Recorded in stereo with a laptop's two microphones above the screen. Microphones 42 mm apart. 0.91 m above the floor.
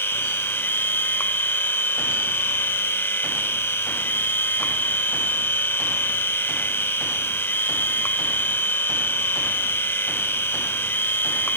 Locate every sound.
0.0 s a machine running: 60° left (ahead or behind), 0.9 m